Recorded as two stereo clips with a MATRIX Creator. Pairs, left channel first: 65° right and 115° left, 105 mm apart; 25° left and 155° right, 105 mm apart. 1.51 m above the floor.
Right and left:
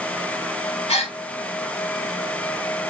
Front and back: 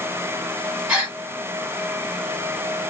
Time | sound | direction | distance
0.9 | a gasp | 75° right | 1.1 m